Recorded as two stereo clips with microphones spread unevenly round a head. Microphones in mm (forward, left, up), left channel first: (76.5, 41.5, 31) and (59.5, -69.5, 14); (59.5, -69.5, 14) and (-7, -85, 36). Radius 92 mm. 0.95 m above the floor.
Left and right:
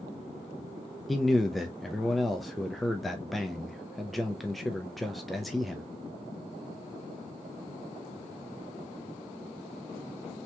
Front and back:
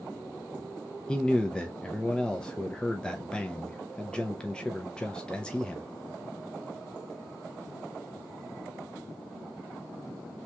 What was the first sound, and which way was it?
A man speaking, 20° right.